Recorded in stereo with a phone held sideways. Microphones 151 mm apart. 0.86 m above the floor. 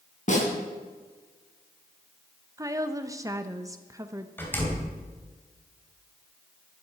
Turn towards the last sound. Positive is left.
turn(degrees=15)  # may be behind; listen again after turning